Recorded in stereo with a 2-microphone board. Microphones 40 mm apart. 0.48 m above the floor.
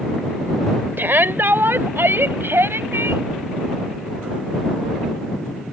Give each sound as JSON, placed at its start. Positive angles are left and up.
{"t": 1.0, "sound": "a shout", "side_deg": -60}